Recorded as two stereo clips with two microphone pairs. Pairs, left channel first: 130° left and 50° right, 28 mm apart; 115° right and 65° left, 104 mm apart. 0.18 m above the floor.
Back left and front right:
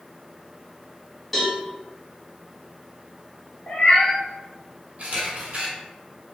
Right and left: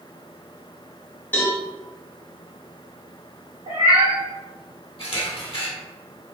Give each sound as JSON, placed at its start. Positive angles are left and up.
{"t": 1.3, "sound": "a cowbell", "azimuth_deg": -145, "distance_m": 1.0}
{"t": 3.7, "sound": "a cat meowing", "azimuth_deg": 90, "distance_m": 1.2}
{"t": 5.0, "sound": "a camera shutter", "azimuth_deg": -85, "distance_m": 1.1}